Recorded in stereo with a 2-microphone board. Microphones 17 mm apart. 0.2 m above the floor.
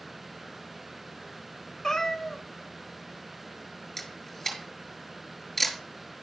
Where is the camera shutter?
20° left (ahead or behind), 3 m.